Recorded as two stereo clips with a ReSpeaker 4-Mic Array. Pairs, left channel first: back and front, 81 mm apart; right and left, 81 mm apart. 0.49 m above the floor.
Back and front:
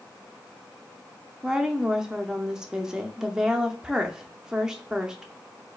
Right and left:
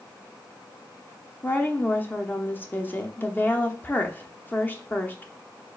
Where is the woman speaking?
75° right, 0.7 m.